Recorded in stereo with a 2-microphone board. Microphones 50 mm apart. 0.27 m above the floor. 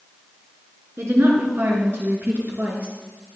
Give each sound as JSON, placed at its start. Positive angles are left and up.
{"t": 1.0, "sound": "a woman speaking", "side_deg": -55, "distance_m": 3.5}